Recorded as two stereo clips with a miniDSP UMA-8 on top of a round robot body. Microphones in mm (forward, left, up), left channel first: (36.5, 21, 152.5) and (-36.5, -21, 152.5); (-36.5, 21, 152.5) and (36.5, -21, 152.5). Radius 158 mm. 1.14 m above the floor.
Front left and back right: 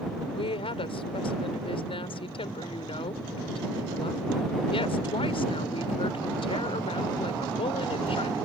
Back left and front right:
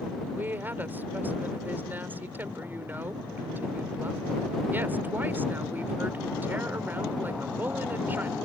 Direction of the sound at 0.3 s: 40° left.